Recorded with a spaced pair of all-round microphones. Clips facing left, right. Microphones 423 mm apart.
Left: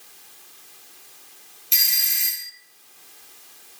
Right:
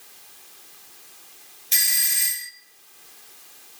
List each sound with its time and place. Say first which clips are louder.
1.7 s a doorbell: right 4 dB; 30° right (ahead or behind), 1.1 m